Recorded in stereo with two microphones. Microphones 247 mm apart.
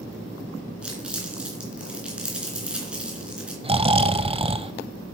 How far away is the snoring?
About 0.5 m.